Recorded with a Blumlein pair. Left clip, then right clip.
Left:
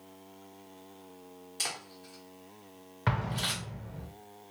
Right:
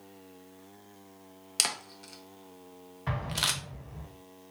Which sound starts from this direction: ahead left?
An explosion, at 3.1 s.